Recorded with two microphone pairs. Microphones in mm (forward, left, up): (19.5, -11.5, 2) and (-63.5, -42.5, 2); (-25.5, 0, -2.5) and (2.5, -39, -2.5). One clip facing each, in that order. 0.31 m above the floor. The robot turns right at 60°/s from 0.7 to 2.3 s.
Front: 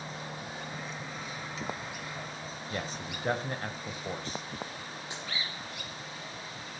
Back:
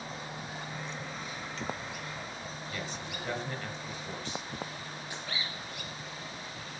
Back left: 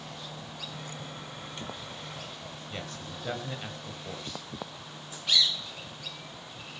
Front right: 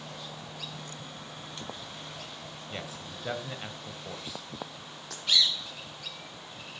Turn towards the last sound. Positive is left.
turn(degrees=-45)